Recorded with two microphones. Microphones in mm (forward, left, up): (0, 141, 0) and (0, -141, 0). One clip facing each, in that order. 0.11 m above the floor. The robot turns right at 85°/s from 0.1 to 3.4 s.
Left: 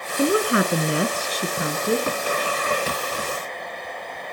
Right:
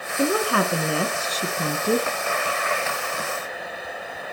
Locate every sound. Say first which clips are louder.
0.2 s a woman speaking: left 2 dB; 15° left (ahead or behind), 1.2 m; by 2.1 s 10° right (ahead or behind), 1.2 m